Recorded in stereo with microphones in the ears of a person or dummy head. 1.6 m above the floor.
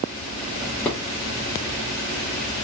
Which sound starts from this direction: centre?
A drawer, at 0.6 s.